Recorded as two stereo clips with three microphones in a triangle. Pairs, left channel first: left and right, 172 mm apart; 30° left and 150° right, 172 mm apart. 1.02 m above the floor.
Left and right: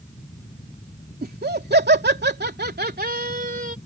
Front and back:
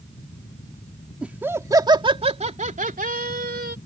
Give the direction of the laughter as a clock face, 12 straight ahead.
2 o'clock.